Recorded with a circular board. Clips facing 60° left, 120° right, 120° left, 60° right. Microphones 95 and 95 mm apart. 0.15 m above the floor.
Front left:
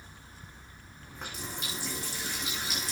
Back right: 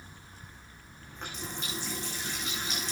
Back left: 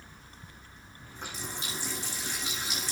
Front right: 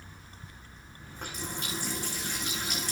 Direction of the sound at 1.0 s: 25° right.